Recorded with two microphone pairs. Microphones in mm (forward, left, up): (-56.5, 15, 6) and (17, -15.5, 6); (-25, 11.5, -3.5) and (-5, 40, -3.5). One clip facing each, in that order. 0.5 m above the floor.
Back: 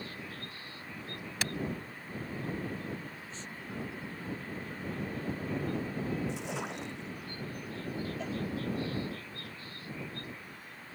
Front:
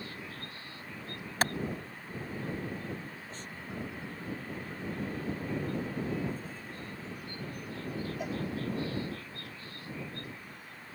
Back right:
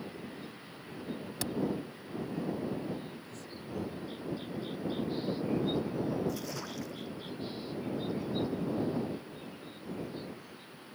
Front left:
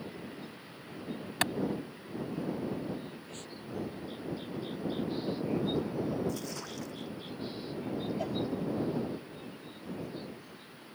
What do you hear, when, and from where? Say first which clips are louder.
1.4 s a clap: front 7 dB, front left 7 dB; 20° left
3.3 s breathing: even, back right 1 dB; 20° left
6.3 s a splash: back 4 dB, even; 150° left
8.2 s a cowbell: front 1 dB, front left 2 dB; 60° left